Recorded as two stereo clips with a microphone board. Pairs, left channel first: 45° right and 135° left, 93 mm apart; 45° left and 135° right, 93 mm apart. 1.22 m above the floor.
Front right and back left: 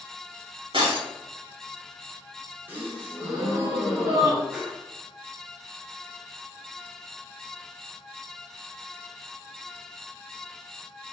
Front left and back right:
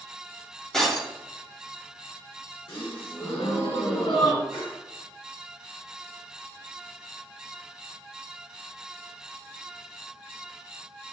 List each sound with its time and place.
0.7 s breaking glass: 130° left, 2 m
2.7 s a gasp: 65° left, 2.5 m
4.5 s a whoosh: 55° left, 1.4 m